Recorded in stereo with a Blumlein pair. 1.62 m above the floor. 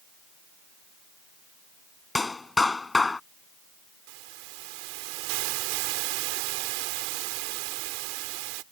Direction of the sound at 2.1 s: 10° left.